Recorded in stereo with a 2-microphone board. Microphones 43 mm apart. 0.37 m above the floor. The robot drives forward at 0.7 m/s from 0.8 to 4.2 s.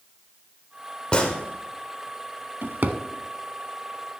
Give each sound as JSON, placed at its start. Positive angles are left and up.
{"t": 1.1, "sound": "a gunshot", "side_deg": 25, "distance_m": 1.3}
{"t": 2.6, "sound": "a drawer", "side_deg": -60, "distance_m": 0.6}